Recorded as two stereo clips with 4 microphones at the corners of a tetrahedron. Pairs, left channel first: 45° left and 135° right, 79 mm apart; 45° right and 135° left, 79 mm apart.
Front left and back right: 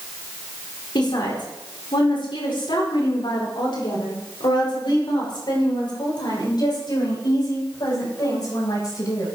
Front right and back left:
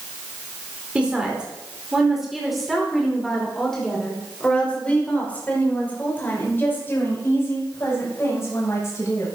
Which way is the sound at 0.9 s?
60° left.